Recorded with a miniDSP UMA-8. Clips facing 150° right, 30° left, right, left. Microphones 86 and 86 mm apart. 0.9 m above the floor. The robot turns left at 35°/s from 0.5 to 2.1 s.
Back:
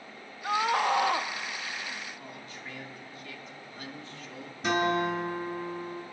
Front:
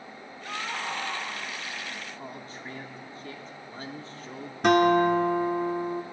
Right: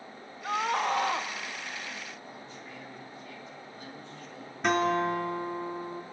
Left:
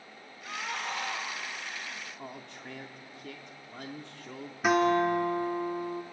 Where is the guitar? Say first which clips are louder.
Front 7 dB, left 2 dB; 5° left, 2.0 m.